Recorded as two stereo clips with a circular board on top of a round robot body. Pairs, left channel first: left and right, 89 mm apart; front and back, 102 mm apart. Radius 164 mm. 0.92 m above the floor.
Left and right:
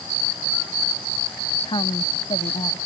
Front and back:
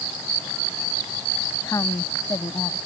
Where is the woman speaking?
60° left.